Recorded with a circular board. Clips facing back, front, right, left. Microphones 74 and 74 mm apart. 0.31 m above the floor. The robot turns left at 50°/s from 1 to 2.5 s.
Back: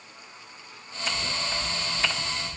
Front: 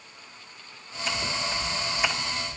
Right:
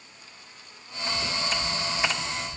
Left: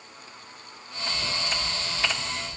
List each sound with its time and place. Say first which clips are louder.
1.1 s footsteps: front 2 dB, right 2 dB; 70° right, 3 m; by 2.6 s 140° right, 2.5 m